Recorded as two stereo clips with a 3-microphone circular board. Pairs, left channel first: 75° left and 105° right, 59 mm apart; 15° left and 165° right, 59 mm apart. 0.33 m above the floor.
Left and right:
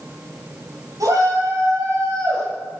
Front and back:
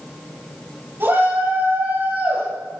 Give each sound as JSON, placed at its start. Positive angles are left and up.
{"t": 1.0, "sound": "a shout", "azimuth_deg": -115, "distance_m": 6.0}